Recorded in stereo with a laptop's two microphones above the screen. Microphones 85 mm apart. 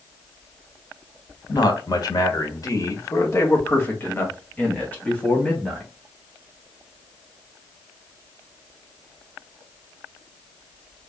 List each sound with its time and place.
1.5 s a man speaking: 55° left (ahead or behind), 1.3 m; by 5.9 s 10° left (ahead or behind), 2.5 m